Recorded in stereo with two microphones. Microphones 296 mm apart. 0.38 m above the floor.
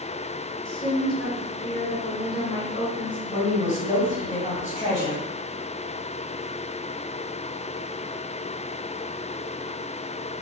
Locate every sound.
0.7 s a woman speaking: 15° left (ahead or behind), 1.2 m
3.3 s a woman speaking: 25° left (ahead or behind), 1.8 m